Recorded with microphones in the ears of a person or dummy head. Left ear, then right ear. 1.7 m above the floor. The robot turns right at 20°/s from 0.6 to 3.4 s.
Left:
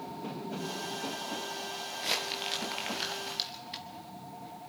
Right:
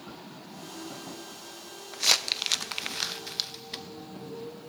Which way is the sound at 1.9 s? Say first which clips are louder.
Right 9 dB; 50° right (ahead or behind).